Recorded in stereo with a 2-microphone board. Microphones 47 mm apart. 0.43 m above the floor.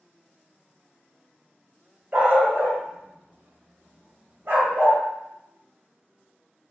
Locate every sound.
2.1 s a dog barking: 40° right (ahead or behind), 0.9 m